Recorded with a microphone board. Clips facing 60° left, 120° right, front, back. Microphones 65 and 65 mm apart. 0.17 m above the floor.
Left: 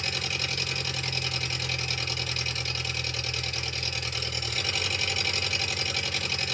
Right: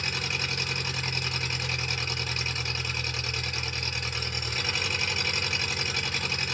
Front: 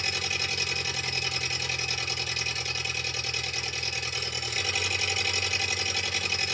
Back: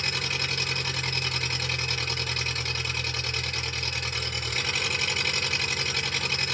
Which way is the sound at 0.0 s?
175° right.